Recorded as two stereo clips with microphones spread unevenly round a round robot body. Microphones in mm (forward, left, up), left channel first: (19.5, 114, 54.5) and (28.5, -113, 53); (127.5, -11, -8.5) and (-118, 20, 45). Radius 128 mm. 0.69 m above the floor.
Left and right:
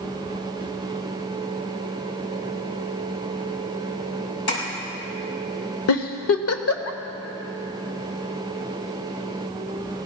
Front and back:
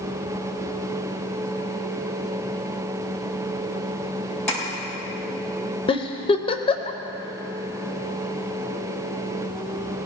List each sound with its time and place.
4.5 s tapping: 80° left, 6 m
5.9 s a giggle: 65° left, 1.0 m